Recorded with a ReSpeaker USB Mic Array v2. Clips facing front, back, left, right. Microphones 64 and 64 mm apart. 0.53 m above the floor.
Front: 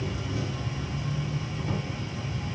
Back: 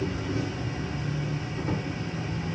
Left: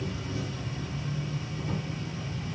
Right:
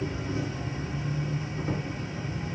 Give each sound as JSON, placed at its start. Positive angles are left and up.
{"t": 0.0, "sound": "an insect", "azimuth_deg": -140, "distance_m": 2.5}